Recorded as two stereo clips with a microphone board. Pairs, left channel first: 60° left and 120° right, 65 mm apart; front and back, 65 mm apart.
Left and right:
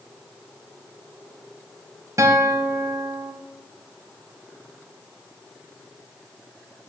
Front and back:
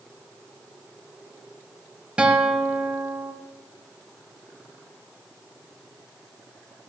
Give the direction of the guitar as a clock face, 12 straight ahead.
4 o'clock.